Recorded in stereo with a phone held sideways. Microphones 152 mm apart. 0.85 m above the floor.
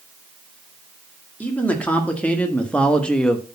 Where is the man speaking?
10° left (ahead or behind), 2 m; by 3.5 s 5° left (ahead or behind), 1.0 m.